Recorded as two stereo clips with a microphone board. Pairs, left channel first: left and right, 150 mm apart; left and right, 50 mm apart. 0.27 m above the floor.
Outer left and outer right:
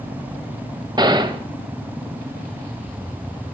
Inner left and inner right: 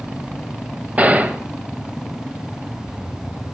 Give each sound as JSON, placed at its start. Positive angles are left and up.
{"t": 1.0, "sound": "a gunshot", "side_deg": -30, "distance_m": 0.6}